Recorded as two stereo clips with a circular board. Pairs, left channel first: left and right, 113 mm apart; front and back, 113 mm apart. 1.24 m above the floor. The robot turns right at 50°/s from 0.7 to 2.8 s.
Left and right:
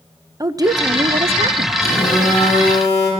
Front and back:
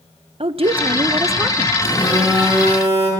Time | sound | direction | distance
0.4 | a woman speaking | 145° right | 0.6 m
1.8 | a phone buzzing | 60° left | 8.5 m